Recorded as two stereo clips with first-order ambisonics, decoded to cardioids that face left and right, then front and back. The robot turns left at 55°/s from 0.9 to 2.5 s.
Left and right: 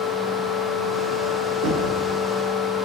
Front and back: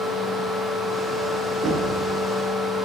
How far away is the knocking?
About 7 m.